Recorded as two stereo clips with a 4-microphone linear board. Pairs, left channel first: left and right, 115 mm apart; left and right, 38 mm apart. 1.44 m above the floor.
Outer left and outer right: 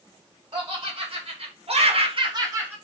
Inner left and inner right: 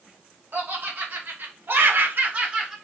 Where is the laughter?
45° right (ahead or behind), 1.3 m; by 2.8 s 15° right (ahead or behind), 0.6 m.